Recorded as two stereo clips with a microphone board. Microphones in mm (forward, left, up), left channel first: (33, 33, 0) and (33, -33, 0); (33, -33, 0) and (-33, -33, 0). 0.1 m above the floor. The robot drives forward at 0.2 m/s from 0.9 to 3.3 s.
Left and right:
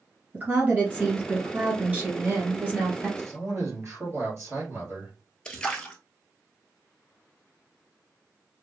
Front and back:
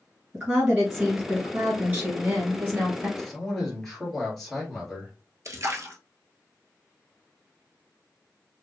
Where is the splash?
165° left, 0.7 m.